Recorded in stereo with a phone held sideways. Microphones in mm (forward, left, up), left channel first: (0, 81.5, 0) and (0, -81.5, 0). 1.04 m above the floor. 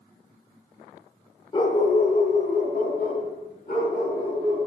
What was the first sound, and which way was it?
A dog barking, 30° left (ahead or behind).